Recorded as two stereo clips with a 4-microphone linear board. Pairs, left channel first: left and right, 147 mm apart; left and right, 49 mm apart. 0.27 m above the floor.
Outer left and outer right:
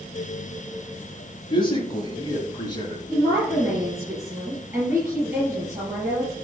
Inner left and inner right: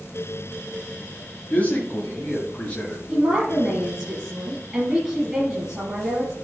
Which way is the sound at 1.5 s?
35° left (ahead or behind).